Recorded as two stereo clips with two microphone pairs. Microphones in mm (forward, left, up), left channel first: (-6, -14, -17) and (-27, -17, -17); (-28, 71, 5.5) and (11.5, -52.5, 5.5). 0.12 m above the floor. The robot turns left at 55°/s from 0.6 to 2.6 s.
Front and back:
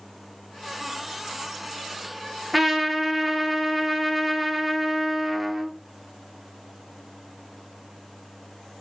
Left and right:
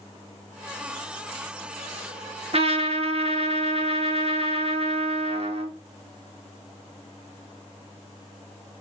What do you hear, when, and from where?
2.5 s a trumpet: 85° right, 0.5 m; by 5.7 s 90° right, 0.5 m